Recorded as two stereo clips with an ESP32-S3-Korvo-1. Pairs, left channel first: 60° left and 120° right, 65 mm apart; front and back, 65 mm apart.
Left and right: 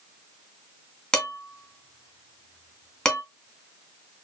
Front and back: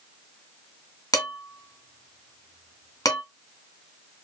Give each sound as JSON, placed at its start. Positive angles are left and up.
{"t": 1.1, "sound": "dishes clattering", "azimuth_deg": -15, "distance_m": 2.0}